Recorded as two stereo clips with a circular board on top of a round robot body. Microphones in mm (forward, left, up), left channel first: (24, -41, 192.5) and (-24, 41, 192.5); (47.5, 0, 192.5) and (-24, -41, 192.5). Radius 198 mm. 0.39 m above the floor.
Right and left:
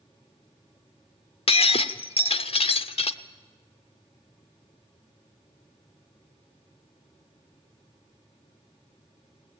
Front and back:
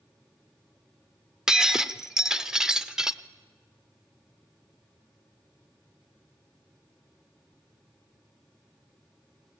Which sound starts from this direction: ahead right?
Breaking glass, at 1.5 s.